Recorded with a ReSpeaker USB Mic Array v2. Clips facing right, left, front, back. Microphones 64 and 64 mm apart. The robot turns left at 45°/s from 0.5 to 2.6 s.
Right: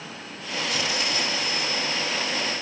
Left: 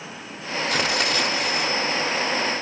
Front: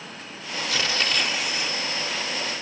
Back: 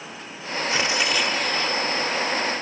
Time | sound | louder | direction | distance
0.7 | tearing paper | left 5 dB, back 2 dB | 115° left | ?